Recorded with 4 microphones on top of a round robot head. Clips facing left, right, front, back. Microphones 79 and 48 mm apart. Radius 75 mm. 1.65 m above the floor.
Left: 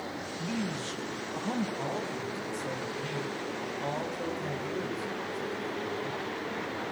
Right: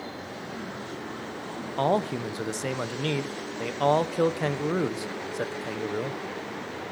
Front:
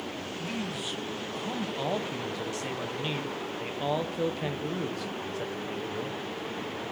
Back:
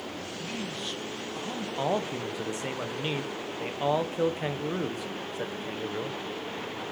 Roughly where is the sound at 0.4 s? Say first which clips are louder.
Left 5 dB, front 1 dB; left.